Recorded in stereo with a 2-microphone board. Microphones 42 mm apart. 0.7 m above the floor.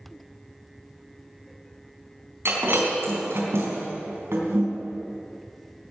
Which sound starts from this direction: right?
Breaking glass, at 2.5 s.